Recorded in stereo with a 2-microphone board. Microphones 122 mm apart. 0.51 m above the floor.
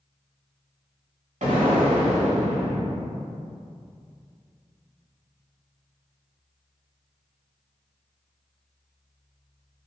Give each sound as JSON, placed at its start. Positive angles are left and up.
{"t": 1.4, "sound": "an explosion", "side_deg": -80, "distance_m": 0.9}